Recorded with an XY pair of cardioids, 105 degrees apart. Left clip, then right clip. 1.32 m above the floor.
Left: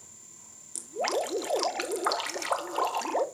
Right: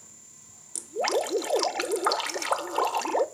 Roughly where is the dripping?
Ahead.